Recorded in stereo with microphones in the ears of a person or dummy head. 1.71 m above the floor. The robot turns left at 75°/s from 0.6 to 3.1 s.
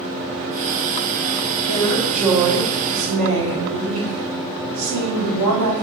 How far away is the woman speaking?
About 1.3 m.